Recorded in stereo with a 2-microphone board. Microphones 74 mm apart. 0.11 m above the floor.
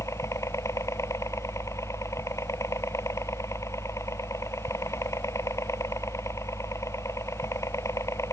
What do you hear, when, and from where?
0.0 s a helicopter: 40° left (ahead or behind)